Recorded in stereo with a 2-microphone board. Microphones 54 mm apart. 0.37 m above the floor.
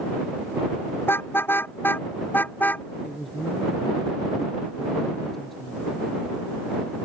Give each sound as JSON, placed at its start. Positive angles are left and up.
{"t": 1.0, "sound": "a car horn", "side_deg": 45}
{"t": 3.0, "sound": "a woman speaking", "side_deg": 5}